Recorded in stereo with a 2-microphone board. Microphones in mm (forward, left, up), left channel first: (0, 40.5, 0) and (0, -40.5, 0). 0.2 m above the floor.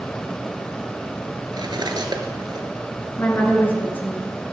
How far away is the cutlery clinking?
About 1.6 m.